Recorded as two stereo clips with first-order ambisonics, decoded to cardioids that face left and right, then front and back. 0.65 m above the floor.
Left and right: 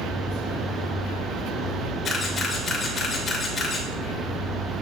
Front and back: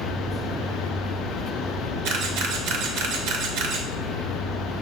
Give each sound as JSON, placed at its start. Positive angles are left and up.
{"t": 2.0, "sound": "a camera shutter", "azimuth_deg": 160, "distance_m": 3.0}